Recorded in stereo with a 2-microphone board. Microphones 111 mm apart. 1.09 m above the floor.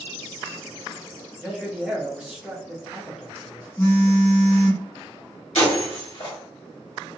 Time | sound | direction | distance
1.4 | a man speaking | 5° right (ahead or behind) | 0.7 m
3.8 | a phone buzzing | 20° left (ahead or behind) | 0.6 m
5.5 | breaking glass | 65° left (ahead or behind) | 1.2 m